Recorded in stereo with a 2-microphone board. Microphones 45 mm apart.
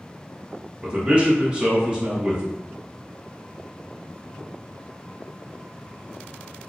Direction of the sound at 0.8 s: 25° right (ahead or behind).